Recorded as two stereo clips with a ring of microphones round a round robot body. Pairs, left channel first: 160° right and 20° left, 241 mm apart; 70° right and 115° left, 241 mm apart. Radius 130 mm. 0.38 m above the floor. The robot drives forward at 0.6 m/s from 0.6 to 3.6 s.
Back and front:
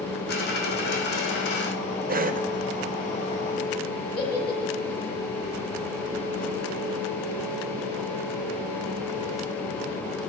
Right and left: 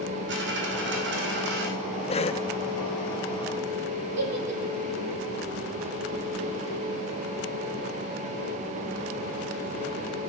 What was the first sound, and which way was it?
A dropped coin, 155° left.